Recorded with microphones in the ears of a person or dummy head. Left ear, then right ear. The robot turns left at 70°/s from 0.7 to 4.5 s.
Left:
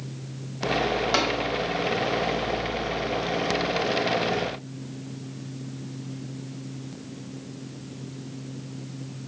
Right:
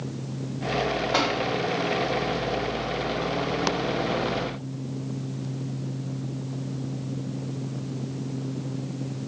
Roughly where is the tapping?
Left.